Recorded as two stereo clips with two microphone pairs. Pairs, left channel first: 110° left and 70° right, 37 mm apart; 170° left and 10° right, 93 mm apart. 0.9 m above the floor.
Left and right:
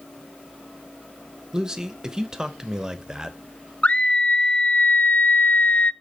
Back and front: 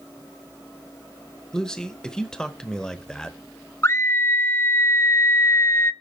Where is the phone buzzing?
No phone buzzing in this recording.